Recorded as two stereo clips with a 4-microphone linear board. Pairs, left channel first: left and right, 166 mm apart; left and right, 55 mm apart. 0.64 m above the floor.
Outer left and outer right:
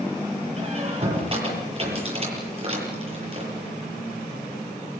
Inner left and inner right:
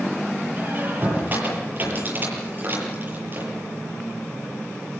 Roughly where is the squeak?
Right.